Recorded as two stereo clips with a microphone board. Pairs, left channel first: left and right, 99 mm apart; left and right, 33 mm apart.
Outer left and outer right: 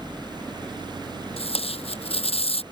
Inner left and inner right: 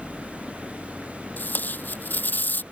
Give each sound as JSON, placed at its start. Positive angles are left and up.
{"t": 1.4, "sound": "tape being pulled", "side_deg": 80}